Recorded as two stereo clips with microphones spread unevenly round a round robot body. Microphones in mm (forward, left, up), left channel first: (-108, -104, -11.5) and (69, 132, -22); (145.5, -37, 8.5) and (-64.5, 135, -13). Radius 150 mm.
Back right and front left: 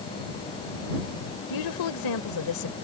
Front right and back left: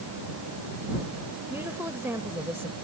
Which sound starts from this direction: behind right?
A woman speaking, at 1.5 s.